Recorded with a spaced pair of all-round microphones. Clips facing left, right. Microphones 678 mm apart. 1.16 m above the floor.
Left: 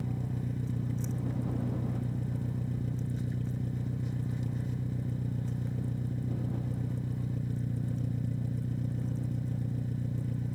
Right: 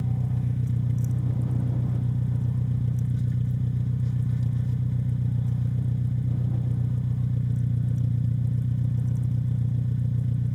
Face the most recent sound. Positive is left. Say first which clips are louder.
# right 5 dB
turn(degrees=-35)  # may be behind; listen again after turning